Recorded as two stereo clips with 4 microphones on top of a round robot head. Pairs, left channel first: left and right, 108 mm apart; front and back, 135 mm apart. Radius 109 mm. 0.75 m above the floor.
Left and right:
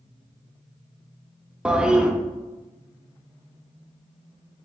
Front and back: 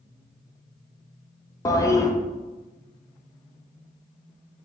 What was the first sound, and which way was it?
A toilet flushing, 20° right.